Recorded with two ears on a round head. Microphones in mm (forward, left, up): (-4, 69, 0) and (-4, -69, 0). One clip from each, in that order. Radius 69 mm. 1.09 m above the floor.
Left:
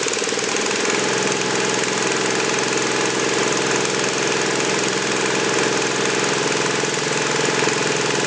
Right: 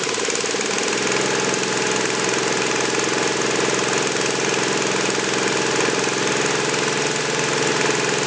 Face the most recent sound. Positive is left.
No sound to turn to.